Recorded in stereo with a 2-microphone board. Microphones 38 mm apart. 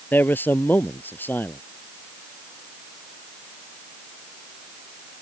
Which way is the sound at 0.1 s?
60° left (ahead or behind).